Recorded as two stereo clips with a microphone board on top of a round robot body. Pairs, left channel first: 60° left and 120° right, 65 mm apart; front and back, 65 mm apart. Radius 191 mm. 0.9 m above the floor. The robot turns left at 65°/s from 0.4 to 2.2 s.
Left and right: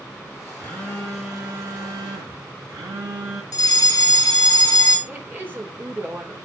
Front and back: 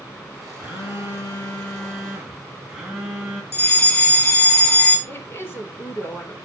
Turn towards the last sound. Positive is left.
turn(degrees=-55)